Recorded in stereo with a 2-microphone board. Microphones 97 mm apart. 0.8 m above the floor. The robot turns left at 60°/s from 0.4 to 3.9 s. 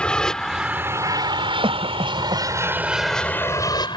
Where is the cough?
65° right (ahead or behind); by 2.5 s 60° right (ahead or behind).